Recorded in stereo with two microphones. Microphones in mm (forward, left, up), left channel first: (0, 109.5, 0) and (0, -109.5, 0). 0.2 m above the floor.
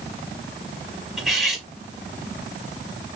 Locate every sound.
1.2 s cutlery clinking: 5° right (ahead or behind), 1.1 m